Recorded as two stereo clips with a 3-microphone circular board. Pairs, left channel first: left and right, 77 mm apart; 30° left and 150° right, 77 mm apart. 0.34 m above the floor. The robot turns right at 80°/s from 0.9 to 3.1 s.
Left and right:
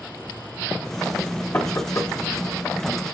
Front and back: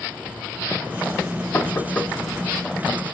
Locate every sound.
1.5 s knocking: 55° left, 0.9 m; by 2.1 s 105° left, 0.9 m